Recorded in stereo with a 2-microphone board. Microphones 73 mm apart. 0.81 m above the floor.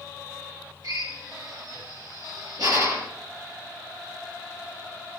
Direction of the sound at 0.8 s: 60° right (ahead or behind).